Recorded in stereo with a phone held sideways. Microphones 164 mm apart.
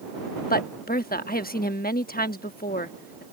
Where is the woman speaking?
65° left (ahead or behind).